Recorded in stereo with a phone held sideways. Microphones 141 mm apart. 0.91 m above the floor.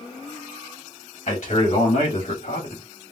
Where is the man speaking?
55° left (ahead or behind), 2 m; by 2.8 s 70° left (ahead or behind), 1.7 m.